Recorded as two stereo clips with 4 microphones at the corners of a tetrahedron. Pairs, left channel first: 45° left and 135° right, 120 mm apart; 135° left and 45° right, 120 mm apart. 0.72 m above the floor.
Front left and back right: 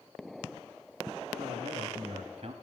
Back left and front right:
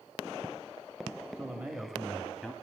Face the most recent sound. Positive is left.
turn(degrees=-130)